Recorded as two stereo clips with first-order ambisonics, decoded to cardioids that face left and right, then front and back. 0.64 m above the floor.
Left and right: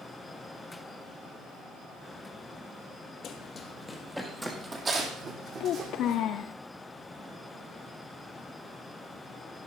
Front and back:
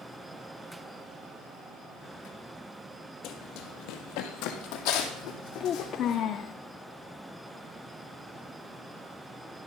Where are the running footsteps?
35° left, 1.3 m; by 6.2 s 35° right, 2.5 m.